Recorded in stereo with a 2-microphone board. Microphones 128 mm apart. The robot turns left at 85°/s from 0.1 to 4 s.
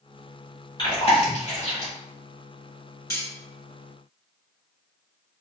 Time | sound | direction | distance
0.8 | chewing | 35° left (ahead or behind) | 1.5 m
3.1 | cutlery clinking | 25° left (ahead or behind) | 1.2 m